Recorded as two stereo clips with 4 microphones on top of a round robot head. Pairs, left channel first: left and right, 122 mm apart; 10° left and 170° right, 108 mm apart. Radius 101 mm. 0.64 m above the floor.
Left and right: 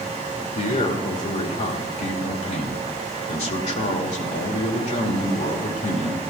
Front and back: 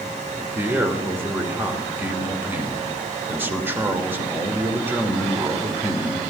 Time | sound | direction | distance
0.6 | a man speaking | 115° left | 2 m